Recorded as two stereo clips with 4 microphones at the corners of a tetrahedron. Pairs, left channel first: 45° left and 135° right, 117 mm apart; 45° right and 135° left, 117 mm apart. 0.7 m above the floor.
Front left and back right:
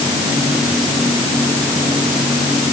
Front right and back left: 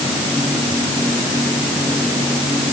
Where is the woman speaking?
I don't hear a woman speaking.